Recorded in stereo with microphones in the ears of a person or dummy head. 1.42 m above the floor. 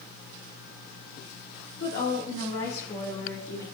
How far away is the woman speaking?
About 2 m.